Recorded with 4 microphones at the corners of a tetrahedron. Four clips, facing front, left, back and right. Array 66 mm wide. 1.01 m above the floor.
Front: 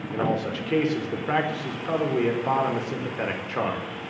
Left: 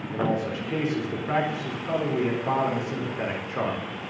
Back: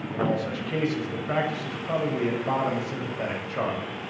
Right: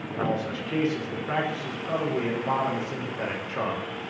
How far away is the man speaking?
About 4 m.